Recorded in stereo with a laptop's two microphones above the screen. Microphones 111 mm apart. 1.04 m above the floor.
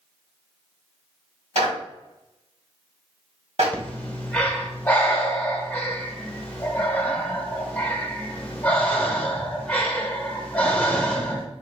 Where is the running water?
No running water in this recording.